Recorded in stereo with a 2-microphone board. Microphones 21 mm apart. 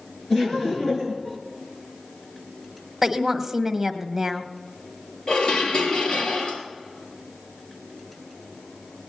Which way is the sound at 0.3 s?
5° left (ahead or behind).